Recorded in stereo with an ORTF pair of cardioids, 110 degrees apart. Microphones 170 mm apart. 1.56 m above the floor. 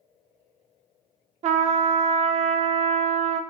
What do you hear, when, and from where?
1.4 s a trumpet: 40° right, 0.7 m